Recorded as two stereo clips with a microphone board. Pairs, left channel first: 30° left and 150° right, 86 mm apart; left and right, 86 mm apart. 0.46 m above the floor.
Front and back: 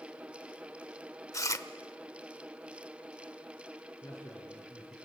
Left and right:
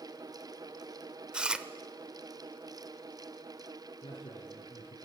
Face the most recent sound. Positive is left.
turn(degrees=90)